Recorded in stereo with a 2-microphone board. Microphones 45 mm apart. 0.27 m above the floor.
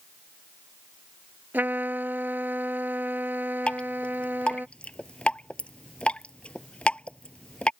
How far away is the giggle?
I don't hear a giggle.